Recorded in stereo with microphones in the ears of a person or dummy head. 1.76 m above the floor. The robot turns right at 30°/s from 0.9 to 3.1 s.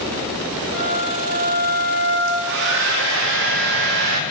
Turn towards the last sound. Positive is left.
turn(degrees=-70)  # may be behind; listen again after turning